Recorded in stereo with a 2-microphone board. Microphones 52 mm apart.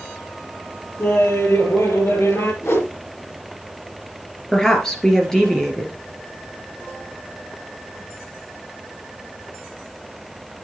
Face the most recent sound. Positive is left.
turn(degrees=10)  # may be behind; listen again after turning